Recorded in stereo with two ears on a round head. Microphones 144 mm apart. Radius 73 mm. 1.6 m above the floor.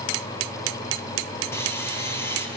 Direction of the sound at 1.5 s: 15° left (ahead or behind).